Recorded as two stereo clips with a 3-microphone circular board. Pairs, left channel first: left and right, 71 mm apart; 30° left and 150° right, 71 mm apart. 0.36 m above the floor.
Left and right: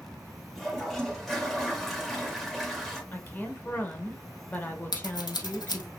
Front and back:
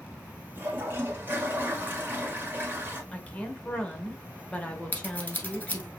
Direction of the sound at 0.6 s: Straight behind.